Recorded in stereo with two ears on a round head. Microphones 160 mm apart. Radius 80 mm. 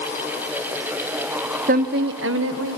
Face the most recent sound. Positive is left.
turn(degrees=-85)